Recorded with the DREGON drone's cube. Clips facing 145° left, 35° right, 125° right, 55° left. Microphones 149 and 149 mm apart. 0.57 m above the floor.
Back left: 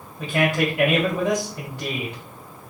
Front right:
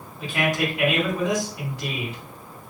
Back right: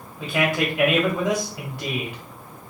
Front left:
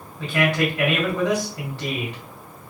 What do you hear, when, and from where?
0.2 s a man speaking: 165° left, 2 m